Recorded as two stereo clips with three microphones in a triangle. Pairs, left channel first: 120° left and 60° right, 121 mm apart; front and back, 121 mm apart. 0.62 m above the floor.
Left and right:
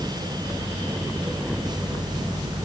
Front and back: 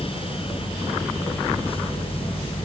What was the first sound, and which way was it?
Only background noise.